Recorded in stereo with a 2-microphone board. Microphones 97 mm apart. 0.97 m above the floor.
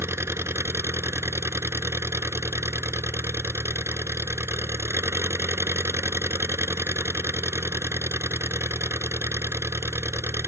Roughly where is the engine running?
Right.